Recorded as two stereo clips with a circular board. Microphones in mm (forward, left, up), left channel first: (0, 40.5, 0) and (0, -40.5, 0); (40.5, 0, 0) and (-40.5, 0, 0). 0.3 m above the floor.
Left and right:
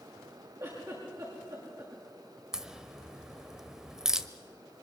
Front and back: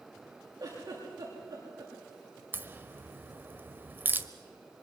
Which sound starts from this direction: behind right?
A giggle, at 0.6 s.